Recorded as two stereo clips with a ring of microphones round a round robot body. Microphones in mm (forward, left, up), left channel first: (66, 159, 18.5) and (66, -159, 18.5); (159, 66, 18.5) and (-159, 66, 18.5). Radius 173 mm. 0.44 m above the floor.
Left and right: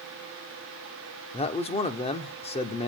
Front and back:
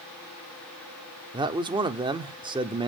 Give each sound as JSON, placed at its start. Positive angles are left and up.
{"t": 1.3, "sound": "a man speaking", "azimuth_deg": 130, "distance_m": 0.9}